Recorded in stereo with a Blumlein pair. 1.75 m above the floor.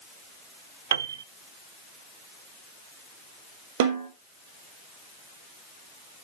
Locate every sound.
0.9 s a piano: 60° right, 0.7 m
3.8 s a snare drum: 55° right, 3.5 m